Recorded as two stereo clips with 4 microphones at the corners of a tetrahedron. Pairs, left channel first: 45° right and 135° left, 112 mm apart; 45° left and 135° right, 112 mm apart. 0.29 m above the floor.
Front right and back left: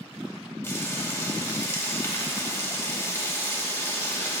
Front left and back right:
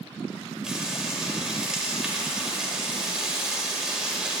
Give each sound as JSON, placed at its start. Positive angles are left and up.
{"t": 0.6, "sound": "frying", "azimuth_deg": -60, "distance_m": 1.5}